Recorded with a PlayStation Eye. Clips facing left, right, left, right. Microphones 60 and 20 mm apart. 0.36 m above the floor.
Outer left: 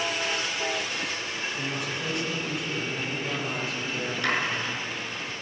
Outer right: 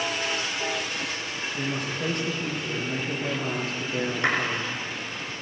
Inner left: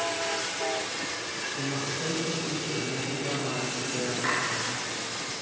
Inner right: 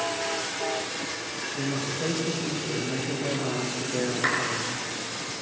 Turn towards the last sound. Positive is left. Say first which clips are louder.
# outer right 1 dB, inner right 2 dB
turn(degrees=-30)  # may be behind; listen again after turning